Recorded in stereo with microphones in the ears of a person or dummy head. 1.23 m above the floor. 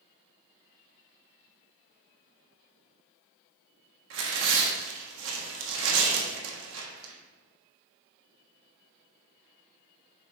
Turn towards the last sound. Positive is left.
turn(degrees=-75)  # may be behind; listen again after turning